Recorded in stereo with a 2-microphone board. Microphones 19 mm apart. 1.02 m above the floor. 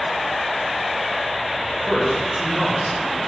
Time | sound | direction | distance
1.6 | a man speaking | 30° right (ahead or behind) | 1.6 m